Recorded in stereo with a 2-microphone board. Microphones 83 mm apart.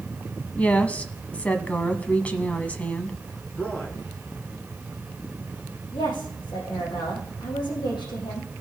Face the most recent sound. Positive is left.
turn(degrees=70)  # may be behind; listen again after turning